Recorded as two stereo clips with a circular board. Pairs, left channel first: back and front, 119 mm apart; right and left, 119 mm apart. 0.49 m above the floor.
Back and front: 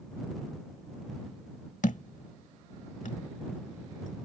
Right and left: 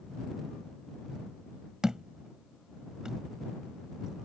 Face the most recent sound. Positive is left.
turn(degrees=175)